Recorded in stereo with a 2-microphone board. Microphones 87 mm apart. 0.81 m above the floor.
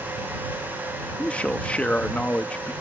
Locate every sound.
1.2 s a man speaking: 15° left (ahead or behind)